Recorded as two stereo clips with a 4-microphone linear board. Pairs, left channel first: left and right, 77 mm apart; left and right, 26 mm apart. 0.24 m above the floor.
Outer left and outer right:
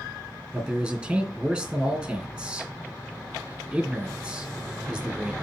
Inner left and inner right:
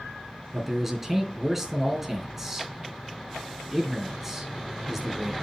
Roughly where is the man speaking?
Centre.